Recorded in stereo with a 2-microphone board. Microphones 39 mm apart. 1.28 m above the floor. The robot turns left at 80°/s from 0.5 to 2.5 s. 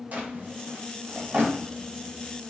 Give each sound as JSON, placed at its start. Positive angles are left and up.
{"t": 0.1, "sound": "a drawer", "side_deg": -45, "distance_m": 0.6}